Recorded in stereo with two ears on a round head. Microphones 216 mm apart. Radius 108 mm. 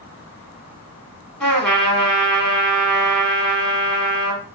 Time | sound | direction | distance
1.4 | a trumpet | 5° left (ahead or behind) | 0.8 m